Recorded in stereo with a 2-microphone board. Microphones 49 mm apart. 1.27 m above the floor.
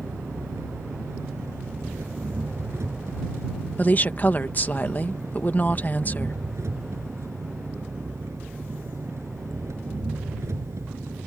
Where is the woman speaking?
40° left (ahead or behind).